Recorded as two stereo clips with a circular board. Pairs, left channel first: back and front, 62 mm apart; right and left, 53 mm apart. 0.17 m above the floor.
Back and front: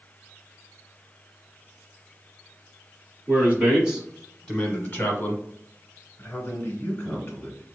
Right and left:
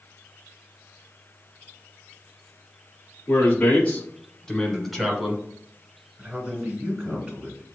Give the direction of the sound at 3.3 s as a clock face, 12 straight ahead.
2 o'clock.